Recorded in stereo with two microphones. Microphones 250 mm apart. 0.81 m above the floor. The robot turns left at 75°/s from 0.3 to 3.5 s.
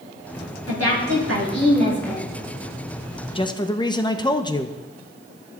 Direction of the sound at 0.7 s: 65° right.